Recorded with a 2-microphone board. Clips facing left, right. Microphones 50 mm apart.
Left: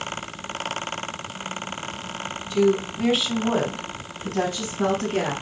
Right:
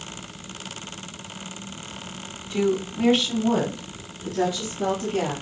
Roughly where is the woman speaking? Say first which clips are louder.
Left 3 dB; right.